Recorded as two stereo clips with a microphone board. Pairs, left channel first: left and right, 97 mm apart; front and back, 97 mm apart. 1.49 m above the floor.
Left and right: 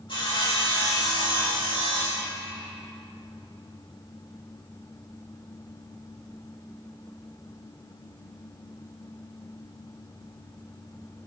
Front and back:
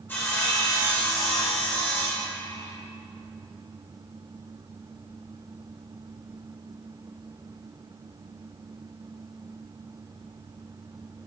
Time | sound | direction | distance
0.1 | sawing | 65° left | 2.0 m